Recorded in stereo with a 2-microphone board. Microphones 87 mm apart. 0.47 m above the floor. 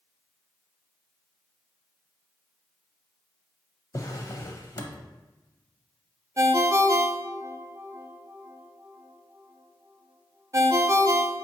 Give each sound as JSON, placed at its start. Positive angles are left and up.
{"t": 3.9, "sound": "a drawer", "side_deg": 40, "distance_m": 0.5}
{"t": 6.4, "sound": "a ringtone", "side_deg": -35, "distance_m": 0.5}